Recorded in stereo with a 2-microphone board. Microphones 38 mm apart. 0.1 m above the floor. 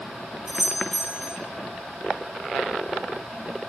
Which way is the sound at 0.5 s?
35° right (ahead or behind).